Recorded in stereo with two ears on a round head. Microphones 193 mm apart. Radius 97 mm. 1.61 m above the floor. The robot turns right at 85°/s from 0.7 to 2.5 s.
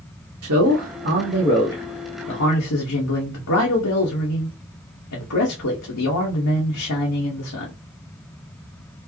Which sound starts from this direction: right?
A man speaking, at 0.4 s.